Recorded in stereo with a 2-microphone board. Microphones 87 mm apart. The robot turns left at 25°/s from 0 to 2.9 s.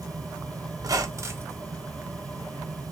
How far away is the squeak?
About 0.6 m.